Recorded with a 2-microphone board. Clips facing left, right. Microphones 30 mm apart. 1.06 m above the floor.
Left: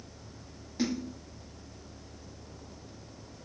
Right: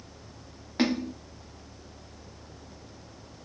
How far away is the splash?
About 0.9 m.